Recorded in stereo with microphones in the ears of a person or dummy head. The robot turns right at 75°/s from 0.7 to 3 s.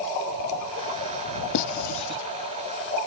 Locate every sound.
1.5 s writing: 70° left (ahead or behind); by 2.2 s 30° left (ahead or behind)